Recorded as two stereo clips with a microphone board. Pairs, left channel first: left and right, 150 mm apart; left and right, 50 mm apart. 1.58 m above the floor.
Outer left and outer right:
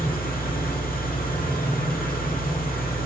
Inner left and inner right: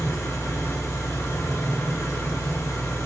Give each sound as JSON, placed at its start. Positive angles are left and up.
{"t": 0.0, "sound": "an engine running", "side_deg": 80, "distance_m": 2.5}